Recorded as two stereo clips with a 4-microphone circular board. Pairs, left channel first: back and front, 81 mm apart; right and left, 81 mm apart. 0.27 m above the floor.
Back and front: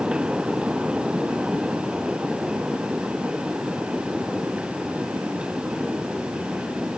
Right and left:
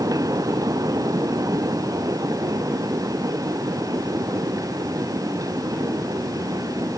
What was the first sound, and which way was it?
Only background noise.